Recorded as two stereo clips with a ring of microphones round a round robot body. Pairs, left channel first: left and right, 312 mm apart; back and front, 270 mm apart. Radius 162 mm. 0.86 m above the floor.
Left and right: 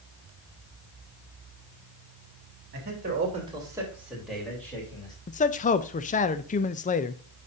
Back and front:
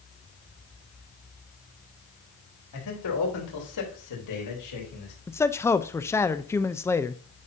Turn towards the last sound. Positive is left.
turn(degrees=110)